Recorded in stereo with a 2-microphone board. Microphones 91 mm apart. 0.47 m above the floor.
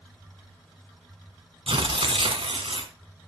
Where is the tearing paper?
80° right, 1.2 m.